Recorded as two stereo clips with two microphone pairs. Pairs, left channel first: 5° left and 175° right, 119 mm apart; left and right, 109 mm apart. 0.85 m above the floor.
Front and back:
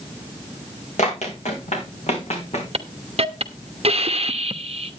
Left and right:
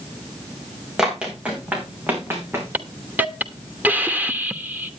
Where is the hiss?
165° right, 1.1 m.